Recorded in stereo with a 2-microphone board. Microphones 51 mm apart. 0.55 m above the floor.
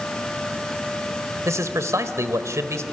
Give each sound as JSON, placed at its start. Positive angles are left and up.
{"t": 1.4, "sound": "a man speaking", "side_deg": -70, "distance_m": 1.9}